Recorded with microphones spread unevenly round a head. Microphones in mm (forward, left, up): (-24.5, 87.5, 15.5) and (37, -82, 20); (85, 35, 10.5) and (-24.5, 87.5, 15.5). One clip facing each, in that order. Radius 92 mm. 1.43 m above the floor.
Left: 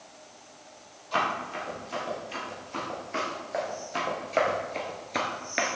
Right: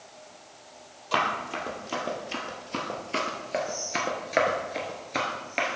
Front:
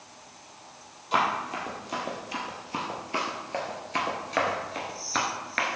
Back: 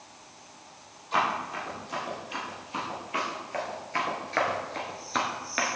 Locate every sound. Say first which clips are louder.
1.1 s running footsteps: right 1 dB, front 1 dB; 70° right, 2.5 m; by 5.8 s 130° left, 1.4 m